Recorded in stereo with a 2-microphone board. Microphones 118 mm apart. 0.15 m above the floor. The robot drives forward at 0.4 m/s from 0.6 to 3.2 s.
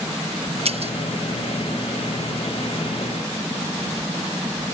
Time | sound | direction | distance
0.7 | breaking glass | 60° right (ahead or behind) | ?